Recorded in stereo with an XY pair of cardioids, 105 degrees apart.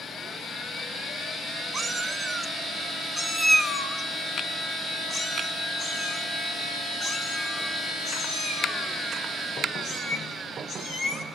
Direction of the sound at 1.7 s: 30° right.